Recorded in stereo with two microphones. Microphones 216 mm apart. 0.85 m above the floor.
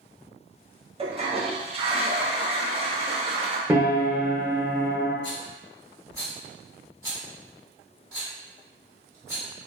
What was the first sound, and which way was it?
A toilet flushing, 25° right (ahead or behind).